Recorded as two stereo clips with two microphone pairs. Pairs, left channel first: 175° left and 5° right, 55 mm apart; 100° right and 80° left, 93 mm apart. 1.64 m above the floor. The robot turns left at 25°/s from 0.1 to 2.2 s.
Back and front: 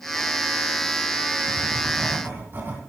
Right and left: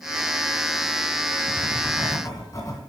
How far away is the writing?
About 3 m.